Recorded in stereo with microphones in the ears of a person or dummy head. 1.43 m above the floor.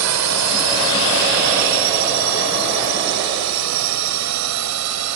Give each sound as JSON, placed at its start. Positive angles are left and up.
{"t": 0.0, "sound": "a drone", "side_deg": -75}